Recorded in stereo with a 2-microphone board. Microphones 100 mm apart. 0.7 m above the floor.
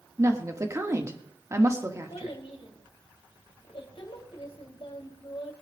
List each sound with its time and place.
0.2 s a woman speaking: 30° right (ahead or behind), 1.5 m
2.1 s a child speaking: 65° left (ahead or behind), 3 m